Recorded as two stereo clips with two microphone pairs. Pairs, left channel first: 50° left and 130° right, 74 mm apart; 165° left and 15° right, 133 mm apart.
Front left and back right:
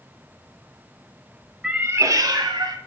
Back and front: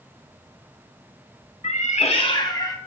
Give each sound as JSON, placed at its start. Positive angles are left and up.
{"t": 1.6, "sound": "a cat meowing", "azimuth_deg": 160, "distance_m": 0.6}